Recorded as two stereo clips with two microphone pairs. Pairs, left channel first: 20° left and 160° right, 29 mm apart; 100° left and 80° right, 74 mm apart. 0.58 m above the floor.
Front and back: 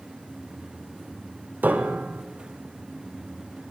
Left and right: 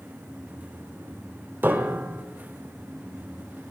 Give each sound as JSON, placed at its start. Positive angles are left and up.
{"t": 1.6, "sound": "a piano", "azimuth_deg": -145, "distance_m": 1.1}